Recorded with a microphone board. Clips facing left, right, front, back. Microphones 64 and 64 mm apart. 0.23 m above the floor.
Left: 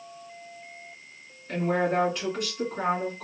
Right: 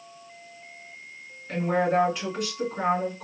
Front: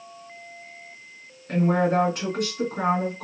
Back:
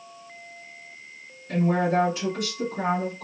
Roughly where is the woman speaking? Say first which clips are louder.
Right 2 dB, front 1 dB; ahead.